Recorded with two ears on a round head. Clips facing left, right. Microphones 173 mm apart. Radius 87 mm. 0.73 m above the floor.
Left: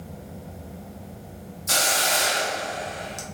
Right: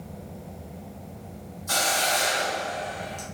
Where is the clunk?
I don't hear a clunk.